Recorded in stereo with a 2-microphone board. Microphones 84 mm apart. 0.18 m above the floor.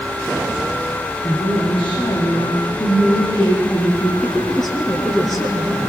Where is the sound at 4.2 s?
5° left (ahead or behind), 3.5 m.